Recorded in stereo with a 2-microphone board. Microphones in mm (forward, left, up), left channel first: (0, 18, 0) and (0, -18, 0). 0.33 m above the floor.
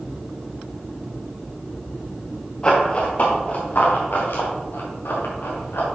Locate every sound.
2.6 s running footsteps: 25° left (ahead or behind), 2.5 m; by 5.8 s 80° left, 4 m